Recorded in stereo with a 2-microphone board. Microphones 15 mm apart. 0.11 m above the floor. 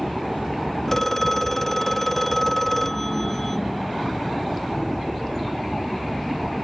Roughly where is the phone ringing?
Centre.